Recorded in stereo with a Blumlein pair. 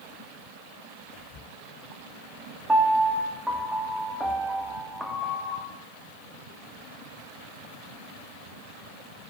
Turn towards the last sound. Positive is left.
turn(degrees=-5)